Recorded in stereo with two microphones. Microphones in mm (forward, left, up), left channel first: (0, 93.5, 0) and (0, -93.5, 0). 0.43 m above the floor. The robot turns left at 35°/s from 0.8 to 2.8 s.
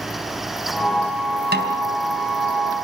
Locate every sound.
1.5 s a snare drum: 70° right (ahead or behind), 3.5 m